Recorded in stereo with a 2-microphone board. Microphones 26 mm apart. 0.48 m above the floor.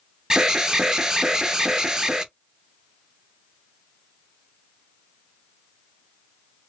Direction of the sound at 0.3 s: 30° right (ahead or behind).